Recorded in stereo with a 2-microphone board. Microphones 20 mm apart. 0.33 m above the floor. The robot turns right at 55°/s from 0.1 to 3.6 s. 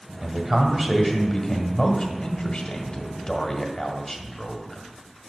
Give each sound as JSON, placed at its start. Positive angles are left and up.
{"t": 0.2, "sound": "a man speaking", "azimuth_deg": -40, "distance_m": 1.4}